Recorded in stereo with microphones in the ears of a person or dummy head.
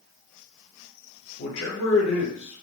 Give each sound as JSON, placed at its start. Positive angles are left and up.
{"t": 1.4, "sound": "a man speaking", "side_deg": 80, "distance_m": 0.9}